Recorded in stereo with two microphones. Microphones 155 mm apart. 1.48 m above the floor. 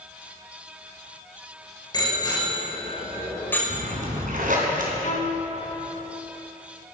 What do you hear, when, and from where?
1.9 s a bicycle bell: 30° left (ahead or behind), 5 m; by 3.6 s 10° left (ahead or behind), 5 m
3.7 s a splash: 60° right (ahead or behind), 3.5 m
5.0 s a violin: 55° left (ahead or behind), 2 m